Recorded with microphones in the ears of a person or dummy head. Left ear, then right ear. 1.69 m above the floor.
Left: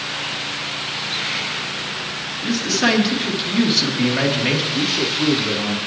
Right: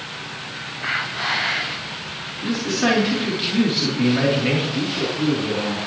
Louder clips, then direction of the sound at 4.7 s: Left 4 dB; 35° left (ahead or behind).